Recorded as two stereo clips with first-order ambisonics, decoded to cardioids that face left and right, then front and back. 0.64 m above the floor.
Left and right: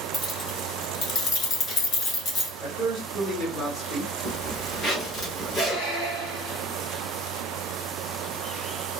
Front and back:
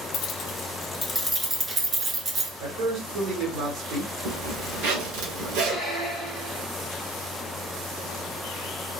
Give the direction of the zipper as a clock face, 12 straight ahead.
7 o'clock.